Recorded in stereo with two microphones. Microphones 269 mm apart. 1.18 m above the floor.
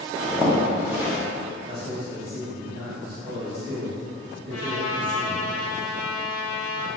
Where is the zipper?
10° right (ahead or behind), 0.7 m.